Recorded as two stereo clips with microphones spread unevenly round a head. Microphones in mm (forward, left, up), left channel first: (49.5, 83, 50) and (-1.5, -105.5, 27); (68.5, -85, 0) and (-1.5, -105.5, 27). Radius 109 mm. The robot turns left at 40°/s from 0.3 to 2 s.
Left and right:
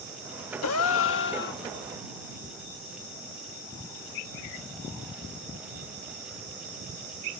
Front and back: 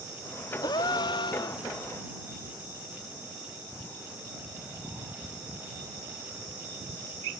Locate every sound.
0.6 s a gasp: 70° left; by 1.6 s 30° left